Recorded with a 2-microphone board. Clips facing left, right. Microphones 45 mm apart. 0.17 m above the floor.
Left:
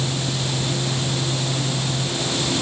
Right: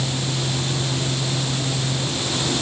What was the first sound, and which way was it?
Only background noise.